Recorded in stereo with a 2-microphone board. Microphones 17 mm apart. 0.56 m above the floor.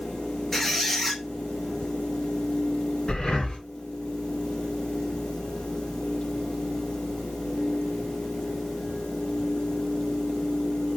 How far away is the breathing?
About 2 m.